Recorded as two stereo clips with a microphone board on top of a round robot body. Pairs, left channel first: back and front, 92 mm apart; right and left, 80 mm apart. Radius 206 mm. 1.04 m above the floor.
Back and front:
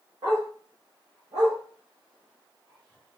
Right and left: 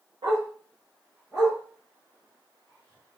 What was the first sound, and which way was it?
A dog barking, 50° left.